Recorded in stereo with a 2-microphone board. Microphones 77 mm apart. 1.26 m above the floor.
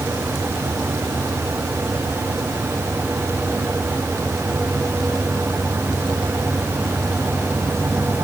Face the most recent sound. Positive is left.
No sound to turn to.